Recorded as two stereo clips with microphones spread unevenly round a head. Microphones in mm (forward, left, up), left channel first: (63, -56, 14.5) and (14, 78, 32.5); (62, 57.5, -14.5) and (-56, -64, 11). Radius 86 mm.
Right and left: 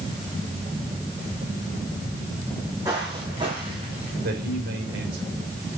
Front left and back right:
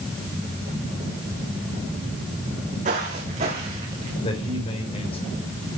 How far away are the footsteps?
About 4.5 m.